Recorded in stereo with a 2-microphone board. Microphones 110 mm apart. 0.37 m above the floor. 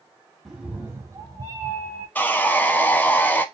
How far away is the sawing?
About 0.5 m.